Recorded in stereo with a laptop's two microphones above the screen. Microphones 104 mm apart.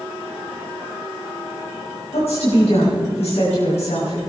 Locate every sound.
2.1 s a woman speaking: 75° left (ahead or behind), 6.5 m